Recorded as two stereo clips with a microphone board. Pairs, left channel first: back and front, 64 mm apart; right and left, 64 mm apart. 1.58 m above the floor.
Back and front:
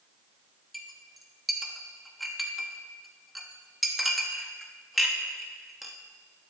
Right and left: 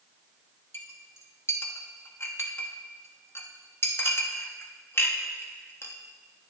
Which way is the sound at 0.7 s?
90° right.